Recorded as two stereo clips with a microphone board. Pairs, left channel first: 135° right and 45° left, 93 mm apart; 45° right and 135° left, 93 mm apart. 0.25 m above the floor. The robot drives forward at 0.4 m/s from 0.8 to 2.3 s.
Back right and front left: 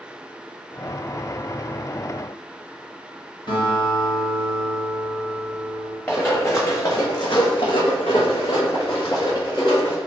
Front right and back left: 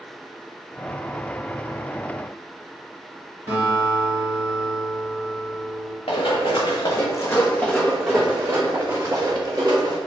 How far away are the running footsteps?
About 1.0 m.